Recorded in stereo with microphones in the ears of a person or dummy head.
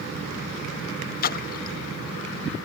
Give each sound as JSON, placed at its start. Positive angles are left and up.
{"t": 1.2, "sound": "a splash", "side_deg": 50}